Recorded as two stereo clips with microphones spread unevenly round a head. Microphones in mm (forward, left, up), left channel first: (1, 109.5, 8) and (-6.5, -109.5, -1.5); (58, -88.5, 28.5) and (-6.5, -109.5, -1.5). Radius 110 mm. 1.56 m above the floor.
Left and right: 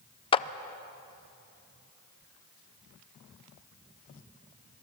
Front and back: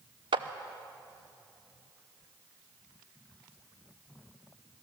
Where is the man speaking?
No man speaking in this recording.